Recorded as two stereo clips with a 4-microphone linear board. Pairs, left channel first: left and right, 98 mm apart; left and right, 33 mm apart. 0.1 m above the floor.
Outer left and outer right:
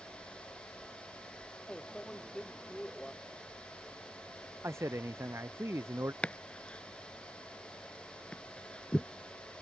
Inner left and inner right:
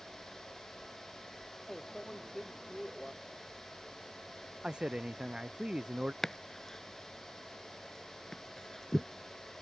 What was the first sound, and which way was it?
A microwave, 5° left (ahead or behind).